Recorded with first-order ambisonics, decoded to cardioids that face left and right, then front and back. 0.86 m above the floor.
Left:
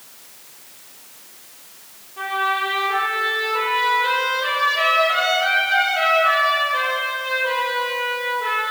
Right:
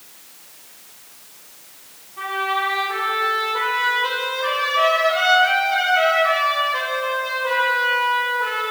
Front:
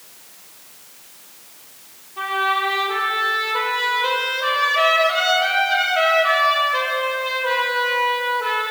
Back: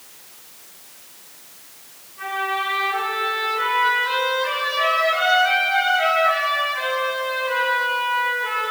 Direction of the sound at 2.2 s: 15° left.